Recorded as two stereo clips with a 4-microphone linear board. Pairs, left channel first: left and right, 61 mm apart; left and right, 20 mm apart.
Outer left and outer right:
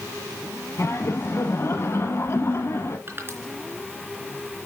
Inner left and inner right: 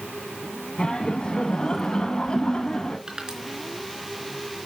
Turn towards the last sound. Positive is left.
turn(degrees=-40)  # may be behind; listen again after turning